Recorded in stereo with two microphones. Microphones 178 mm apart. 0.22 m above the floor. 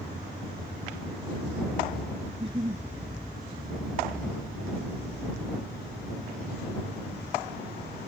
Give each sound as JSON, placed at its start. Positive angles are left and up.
{"t": 2.3, "sound": "a giggle", "side_deg": -30}